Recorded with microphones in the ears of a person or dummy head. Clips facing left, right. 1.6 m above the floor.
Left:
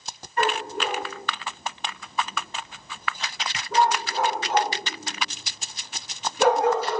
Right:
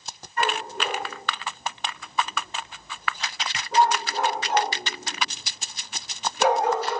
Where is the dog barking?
50° left (ahead or behind), 4.5 m; by 7.0 s 65° left (ahead or behind), 4.5 m.